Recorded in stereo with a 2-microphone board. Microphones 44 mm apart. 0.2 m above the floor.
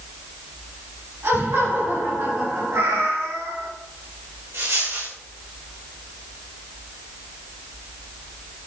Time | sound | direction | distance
1.2 | laughter | 70° right (ahead or behind) | 4 m
2.7 | a cat meowing | 85° right | 3 m
4.5 | a dropped coin | 85° right | 3.5 m